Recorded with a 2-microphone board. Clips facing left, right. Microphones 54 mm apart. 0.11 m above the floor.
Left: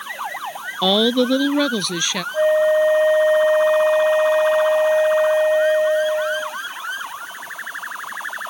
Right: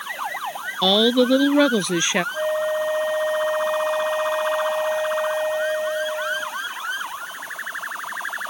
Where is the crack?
No crack in this recording.